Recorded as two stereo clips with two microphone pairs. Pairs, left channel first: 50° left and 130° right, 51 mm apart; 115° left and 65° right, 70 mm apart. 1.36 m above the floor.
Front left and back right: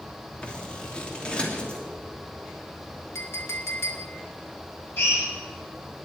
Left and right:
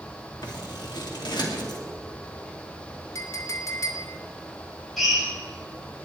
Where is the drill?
25° left, 6 m.